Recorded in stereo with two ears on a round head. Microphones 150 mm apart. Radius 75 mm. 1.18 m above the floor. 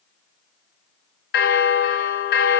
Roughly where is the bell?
Left.